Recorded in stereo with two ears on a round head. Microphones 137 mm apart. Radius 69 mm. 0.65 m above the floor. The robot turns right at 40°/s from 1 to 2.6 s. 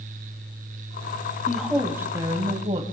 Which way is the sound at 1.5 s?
175° left.